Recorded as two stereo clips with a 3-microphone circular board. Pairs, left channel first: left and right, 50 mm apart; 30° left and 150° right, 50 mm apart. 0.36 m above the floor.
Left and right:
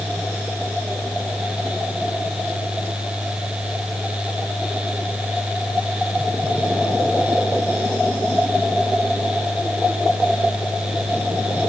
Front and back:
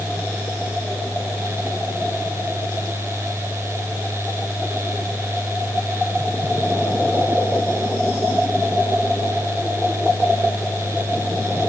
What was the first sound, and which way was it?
Only background noise.